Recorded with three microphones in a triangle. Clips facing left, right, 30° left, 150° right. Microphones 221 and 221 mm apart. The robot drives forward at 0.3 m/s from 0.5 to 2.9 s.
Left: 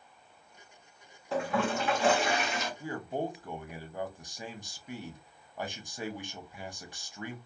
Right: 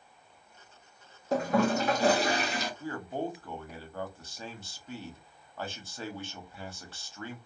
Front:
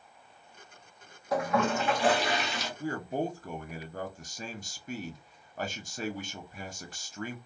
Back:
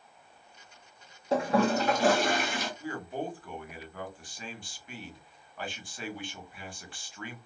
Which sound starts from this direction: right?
A toilet flushing, at 1.3 s.